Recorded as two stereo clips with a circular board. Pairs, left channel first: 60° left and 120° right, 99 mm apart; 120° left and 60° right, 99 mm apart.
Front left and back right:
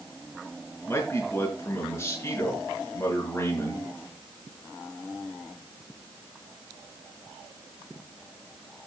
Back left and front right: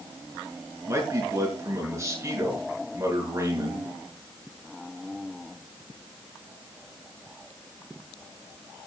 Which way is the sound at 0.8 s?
5° right.